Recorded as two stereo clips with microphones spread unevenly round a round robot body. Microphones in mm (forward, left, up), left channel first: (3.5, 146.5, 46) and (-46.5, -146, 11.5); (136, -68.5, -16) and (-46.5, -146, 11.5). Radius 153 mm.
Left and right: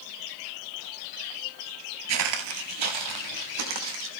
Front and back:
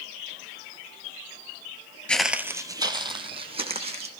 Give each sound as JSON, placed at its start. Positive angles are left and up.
{"t": 2.1, "sound": "footsteps", "azimuth_deg": -70, "distance_m": 0.8}